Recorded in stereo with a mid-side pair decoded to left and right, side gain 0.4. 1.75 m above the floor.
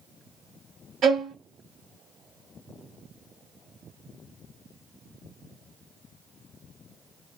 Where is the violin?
65° right, 0.9 m.